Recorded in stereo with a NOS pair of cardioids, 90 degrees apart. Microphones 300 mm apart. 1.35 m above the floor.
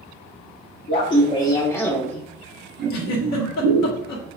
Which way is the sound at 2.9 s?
60° left.